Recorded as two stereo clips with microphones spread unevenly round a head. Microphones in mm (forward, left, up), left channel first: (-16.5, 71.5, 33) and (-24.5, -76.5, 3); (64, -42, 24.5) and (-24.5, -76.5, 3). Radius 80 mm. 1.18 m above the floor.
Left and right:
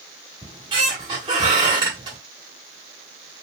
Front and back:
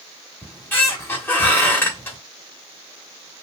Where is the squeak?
25° right, 1.0 m.